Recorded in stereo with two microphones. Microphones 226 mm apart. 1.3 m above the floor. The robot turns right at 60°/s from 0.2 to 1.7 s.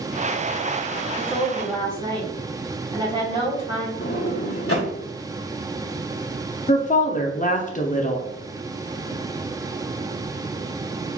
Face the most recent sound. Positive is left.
turn(degrees=35)  # may be behind; listen again after turning